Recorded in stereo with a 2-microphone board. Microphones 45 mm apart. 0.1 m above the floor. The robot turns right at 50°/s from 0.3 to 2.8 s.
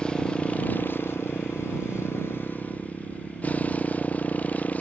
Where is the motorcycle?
20° left; by 4.8 s 145° left.